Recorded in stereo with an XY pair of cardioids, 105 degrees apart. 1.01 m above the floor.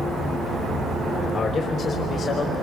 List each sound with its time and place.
1.3 s a man speaking: 55° left, 3.5 m; by 2.5 s 50° left, 4 m